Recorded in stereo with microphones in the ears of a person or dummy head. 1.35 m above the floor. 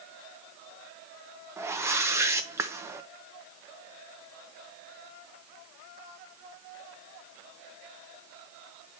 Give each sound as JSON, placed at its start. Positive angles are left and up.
{"t": 1.6, "sound": "a whoosh", "side_deg": -10, "distance_m": 0.6}